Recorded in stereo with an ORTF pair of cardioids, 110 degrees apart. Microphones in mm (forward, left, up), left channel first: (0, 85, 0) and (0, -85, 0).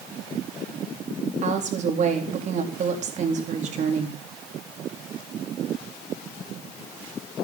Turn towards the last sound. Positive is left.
turn(degrees=-45)